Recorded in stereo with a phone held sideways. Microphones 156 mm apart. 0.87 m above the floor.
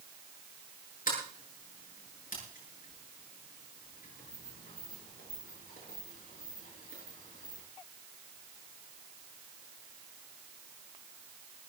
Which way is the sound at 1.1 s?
60° left (ahead or behind).